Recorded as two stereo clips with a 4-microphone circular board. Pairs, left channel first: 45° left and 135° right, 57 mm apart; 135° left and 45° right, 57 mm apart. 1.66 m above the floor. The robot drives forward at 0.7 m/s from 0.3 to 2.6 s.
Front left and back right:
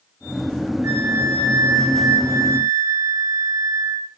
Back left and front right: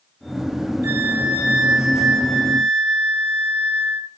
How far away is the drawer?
No drawer in this recording.